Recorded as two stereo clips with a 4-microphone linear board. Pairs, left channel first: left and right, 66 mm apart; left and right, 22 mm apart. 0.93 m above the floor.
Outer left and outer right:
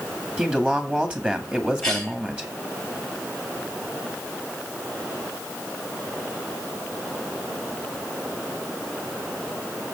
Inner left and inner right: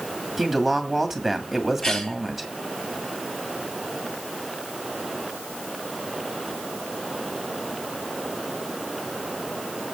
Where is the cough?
10° left (ahead or behind), 4.5 m.